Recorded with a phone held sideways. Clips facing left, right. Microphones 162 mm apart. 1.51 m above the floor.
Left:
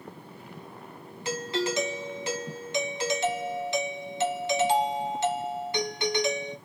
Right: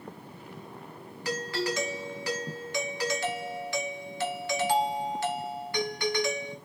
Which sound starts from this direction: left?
A doorbell, at 1.2 s.